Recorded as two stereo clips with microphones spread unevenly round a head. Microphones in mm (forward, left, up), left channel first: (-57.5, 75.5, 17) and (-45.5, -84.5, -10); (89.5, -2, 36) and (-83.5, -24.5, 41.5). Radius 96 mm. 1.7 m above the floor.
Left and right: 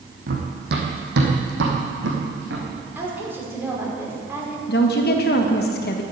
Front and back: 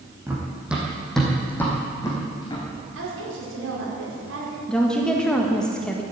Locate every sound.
0.3 s running footsteps: 100° right, 3 m; by 2.7 s 60° right, 4 m
3.0 s a woman speaking: 165° right, 5 m
4.7 s a woman speaking: 95° left, 1.6 m